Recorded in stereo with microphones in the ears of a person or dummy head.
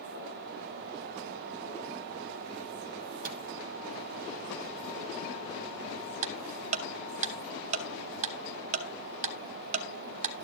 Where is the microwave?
40° right (ahead or behind), 2 m.